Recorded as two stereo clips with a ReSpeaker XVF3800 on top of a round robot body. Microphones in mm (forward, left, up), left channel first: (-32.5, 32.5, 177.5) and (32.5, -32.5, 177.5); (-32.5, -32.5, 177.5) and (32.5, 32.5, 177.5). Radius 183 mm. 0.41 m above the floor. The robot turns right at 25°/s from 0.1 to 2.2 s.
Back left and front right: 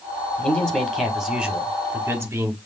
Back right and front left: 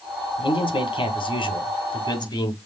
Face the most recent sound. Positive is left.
turn(degrees=-105)